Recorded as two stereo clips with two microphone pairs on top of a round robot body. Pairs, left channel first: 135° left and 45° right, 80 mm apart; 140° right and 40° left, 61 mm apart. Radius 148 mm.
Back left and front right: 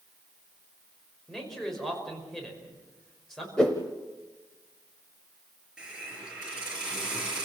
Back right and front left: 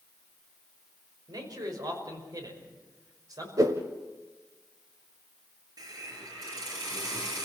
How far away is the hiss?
About 6 m.